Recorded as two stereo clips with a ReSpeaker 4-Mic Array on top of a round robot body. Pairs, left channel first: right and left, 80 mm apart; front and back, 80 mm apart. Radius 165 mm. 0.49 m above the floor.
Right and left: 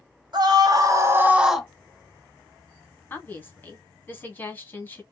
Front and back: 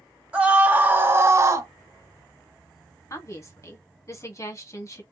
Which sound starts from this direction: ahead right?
A woman speaking, at 3.1 s.